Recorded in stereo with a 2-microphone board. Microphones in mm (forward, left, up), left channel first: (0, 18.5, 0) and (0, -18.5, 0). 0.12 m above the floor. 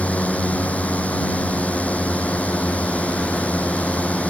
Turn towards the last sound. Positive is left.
turn(degrees=40)  # may be behind; listen again after turning